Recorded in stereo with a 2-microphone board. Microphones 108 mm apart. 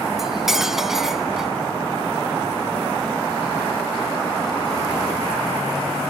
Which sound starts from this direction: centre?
Cutlery clinking, at 0.2 s.